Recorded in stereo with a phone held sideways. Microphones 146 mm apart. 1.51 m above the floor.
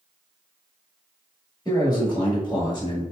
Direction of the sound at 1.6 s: 30° left (ahead or behind).